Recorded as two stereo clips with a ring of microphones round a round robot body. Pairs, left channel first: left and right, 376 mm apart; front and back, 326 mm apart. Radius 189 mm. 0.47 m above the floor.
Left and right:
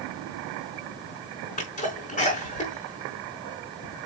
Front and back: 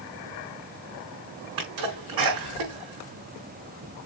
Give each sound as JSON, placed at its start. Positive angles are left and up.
{"t": 1.6, "sound": "a sneeze", "azimuth_deg": 165, "distance_m": 4.0}